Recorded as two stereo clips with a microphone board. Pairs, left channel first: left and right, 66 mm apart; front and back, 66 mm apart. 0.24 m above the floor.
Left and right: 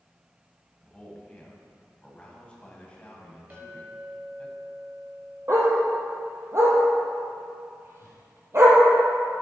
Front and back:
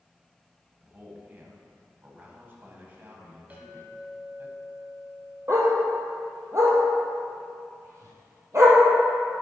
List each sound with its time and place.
0.8 s a man speaking: 150° left, 1.6 m
3.5 s a clink: 125° right, 1.3 m
5.5 s a dog barking: 135° right, 1.9 m